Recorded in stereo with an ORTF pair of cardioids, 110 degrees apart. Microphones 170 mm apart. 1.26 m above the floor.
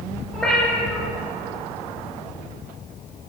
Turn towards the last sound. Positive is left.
turn(degrees=0)